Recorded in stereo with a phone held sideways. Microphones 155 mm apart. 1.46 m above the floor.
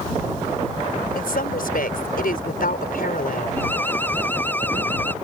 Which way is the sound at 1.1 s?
85° left.